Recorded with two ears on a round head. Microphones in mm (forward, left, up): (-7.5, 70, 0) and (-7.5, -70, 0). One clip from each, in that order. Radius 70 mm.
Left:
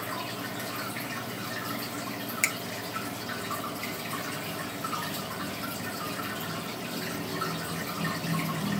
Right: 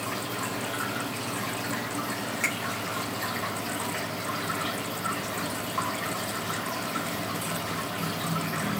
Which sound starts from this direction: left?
A finger snap, at 2.4 s.